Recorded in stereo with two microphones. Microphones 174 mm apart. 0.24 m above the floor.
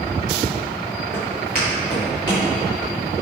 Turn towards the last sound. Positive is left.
turn(degrees=20)  # may be behind; listen again after turning